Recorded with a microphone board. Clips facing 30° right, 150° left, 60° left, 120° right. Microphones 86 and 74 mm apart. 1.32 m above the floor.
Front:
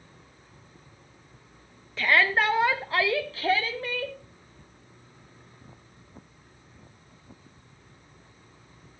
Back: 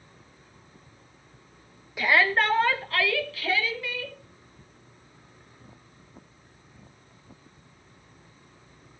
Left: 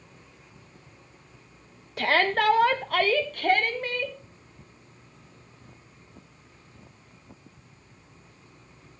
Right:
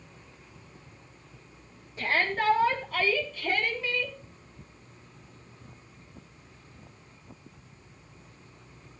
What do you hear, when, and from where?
2.0 s a shout: 70° left, 1.7 m; by 4.2 s 15° left, 3 m